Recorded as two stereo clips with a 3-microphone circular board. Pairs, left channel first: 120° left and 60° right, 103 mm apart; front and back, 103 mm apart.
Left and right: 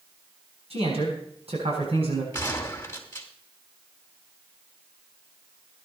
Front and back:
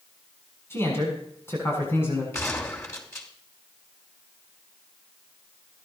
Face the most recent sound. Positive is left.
turn(degrees=60)